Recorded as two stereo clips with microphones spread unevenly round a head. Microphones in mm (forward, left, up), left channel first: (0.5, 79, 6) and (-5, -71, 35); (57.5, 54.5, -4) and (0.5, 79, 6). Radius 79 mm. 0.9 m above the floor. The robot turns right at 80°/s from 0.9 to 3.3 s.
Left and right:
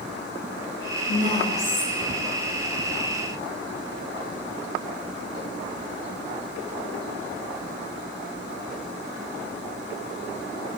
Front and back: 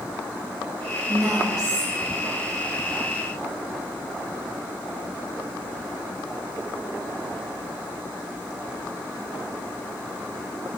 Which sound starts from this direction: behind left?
A woman speaking, at 1.1 s.